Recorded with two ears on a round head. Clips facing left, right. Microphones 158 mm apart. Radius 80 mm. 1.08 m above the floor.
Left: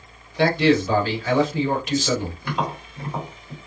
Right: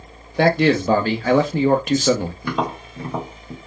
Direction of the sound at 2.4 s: 75° right (ahead or behind).